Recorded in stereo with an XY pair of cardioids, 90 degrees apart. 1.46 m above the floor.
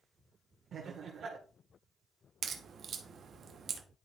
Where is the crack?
65° right, 1.1 m.